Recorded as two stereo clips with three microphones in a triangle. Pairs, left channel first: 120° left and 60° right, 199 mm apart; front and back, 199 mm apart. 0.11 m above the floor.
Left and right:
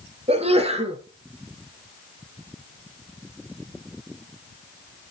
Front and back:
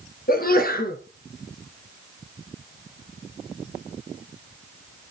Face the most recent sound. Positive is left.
turn(degrees=-10)